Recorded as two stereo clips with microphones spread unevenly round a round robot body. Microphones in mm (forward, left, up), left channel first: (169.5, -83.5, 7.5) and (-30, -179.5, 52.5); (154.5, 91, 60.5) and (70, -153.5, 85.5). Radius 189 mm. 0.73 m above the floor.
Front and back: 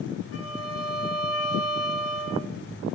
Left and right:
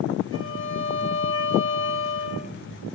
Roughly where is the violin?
Ahead left.